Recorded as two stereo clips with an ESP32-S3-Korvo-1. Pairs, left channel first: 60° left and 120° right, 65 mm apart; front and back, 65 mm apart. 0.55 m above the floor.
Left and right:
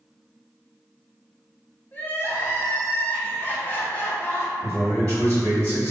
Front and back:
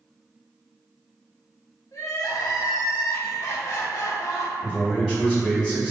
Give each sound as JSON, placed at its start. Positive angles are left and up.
{"t": 1.9, "sound": "crying", "azimuth_deg": 10, "distance_m": 0.5}
{"t": 4.6, "sound": "a man speaking", "azimuth_deg": 80, "distance_m": 1.4}